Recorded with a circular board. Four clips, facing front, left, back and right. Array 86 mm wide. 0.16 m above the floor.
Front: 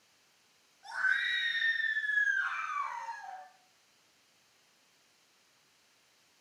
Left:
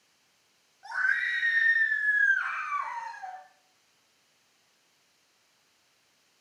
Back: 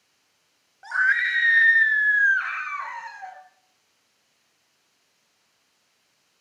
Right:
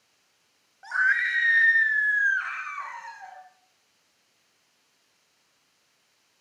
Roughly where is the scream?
Behind right.